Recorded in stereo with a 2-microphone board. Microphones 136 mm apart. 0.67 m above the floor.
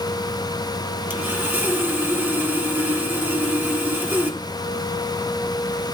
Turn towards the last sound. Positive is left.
turn(degrees=-15)  # may be behind; listen again after turning